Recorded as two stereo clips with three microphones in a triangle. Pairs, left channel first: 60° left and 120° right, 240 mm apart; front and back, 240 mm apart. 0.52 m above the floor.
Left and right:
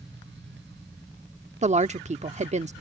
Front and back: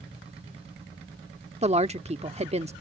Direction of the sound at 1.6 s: 145° right.